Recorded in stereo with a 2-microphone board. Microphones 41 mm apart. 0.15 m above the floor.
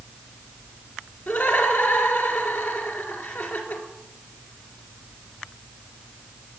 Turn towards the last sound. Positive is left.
turn(degrees=60)  # may be behind; listen again after turning